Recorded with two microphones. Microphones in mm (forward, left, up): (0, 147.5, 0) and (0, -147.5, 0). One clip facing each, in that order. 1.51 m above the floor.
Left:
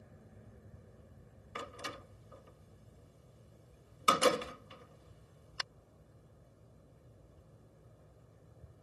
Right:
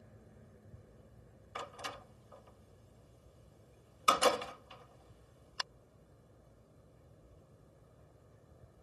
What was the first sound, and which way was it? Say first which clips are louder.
A door slam: left 2 dB; 25° left (ahead or behind).